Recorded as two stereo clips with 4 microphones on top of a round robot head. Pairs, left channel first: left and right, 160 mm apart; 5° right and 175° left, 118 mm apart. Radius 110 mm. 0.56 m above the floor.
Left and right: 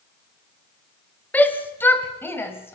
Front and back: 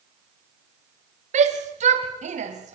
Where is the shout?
170° left, 3 m; by 2.8 s 165° left, 3.5 m.